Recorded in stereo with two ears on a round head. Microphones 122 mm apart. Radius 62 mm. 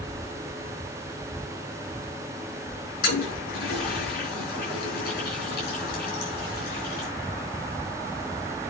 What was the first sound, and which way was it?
A toilet flushing, 65° left (ahead or behind).